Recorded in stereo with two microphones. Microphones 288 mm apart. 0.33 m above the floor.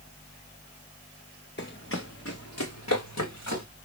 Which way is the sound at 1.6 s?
40° left (ahead or behind).